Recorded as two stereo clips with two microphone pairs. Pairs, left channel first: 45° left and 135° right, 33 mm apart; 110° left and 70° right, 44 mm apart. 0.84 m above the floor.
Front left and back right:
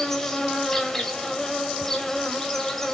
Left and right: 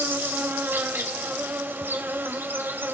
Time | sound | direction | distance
0.0 | an insect | 35° right | 2.5 m